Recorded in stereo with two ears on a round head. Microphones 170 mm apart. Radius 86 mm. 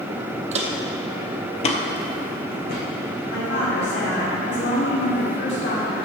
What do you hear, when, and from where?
0.5 s footsteps: 35° right (ahead or behind), 1.3 m; by 2.8 s 45° left (ahead or behind), 2.5 m
3.3 s a woman speaking: 60° left (ahead or behind), 2 m